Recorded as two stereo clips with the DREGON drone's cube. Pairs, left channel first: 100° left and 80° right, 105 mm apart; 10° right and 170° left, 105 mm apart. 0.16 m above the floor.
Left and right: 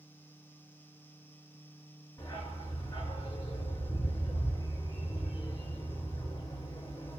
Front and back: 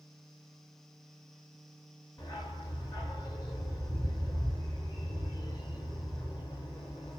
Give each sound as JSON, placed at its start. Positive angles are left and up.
{"t": 2.2, "sound": "a dog barking", "azimuth_deg": 45, "distance_m": 7.0}